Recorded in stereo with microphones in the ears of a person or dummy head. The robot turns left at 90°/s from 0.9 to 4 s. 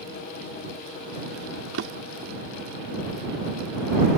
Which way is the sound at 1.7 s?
65° right (ahead or behind).